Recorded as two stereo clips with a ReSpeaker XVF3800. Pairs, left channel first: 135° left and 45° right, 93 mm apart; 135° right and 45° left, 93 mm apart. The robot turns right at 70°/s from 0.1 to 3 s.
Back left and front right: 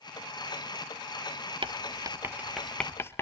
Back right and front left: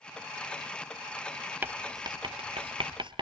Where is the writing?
25° right, 1.1 m; by 3.2 s 70° left, 1.1 m.